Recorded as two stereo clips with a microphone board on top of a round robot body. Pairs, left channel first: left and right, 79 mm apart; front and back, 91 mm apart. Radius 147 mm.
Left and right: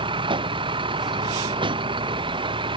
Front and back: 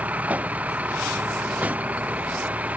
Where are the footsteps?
I don't hear footsteps.